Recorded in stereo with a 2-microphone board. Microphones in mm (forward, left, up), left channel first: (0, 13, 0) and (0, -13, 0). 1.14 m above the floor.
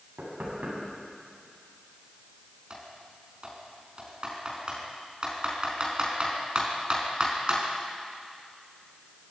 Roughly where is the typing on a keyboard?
Right.